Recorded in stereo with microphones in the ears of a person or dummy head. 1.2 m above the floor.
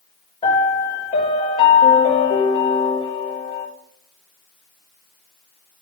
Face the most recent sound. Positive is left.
turn(degrees=25)  # may be behind; listen again after turning